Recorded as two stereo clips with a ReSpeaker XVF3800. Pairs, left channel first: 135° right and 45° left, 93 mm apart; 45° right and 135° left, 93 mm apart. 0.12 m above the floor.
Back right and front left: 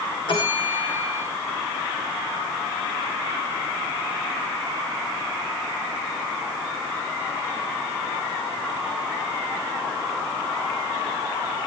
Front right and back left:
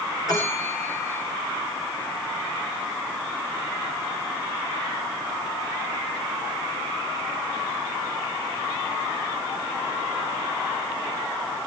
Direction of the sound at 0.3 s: 100° right.